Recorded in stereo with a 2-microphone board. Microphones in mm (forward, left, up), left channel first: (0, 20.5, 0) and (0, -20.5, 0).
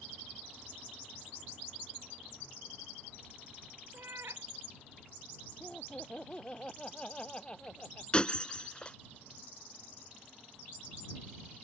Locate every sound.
3.9 s a cat meowing: 90° right
5.6 s laughter: 25° left (ahead or behind)
8.1 s breaking glass: 25° left (ahead or behind)